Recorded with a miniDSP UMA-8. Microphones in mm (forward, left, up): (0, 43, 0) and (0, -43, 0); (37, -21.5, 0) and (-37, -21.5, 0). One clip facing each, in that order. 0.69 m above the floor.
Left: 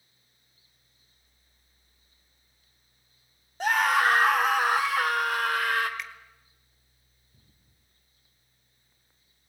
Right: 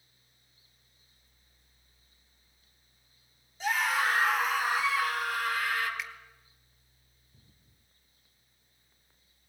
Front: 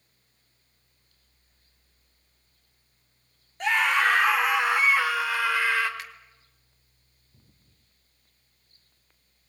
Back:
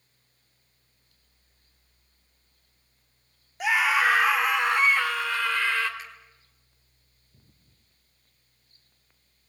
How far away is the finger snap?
About 1.7 m.